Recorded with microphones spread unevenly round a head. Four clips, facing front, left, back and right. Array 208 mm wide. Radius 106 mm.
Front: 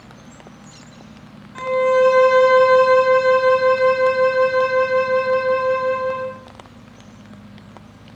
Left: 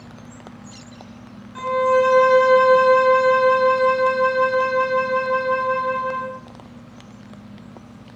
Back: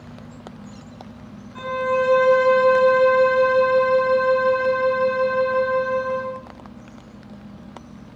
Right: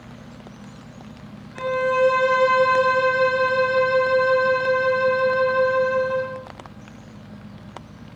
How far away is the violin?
About 8 m.